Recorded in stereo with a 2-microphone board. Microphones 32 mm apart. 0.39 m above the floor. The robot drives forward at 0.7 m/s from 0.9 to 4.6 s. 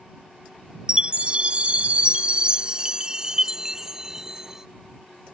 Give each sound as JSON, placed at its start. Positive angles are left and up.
{"t": 0.9, "sound": "a chime", "side_deg": -30}